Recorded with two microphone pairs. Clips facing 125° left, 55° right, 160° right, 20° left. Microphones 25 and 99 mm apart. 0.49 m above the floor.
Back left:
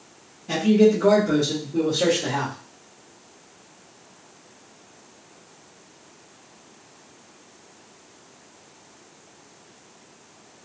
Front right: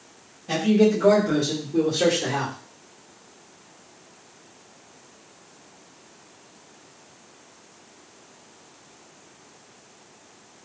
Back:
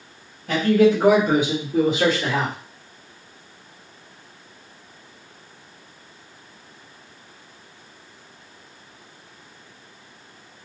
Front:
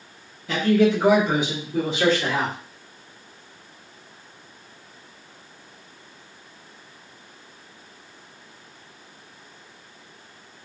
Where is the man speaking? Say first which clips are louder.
Back left 2 dB, back 2 dB; 135° right, 2 m; by 2.5 s 65° right, 1.3 m.